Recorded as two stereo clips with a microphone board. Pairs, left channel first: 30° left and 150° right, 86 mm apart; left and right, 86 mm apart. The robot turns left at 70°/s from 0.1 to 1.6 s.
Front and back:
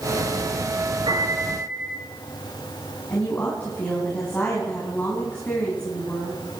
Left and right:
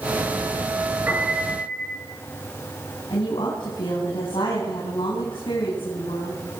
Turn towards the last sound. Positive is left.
turn(degrees=100)